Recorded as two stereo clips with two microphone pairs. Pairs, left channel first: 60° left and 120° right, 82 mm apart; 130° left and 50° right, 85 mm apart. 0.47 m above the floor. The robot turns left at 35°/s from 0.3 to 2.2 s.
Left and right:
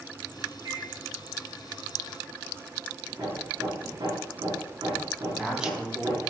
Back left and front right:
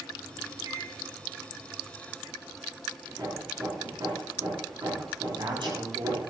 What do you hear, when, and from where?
0.7 s a microwave: 85° right, 4 m; by 0.9 s 90° right, 4 m
3.1 s hammering: 95° right, 6.5 m
5.3 s a woman speaking: 35° right, 4.5 m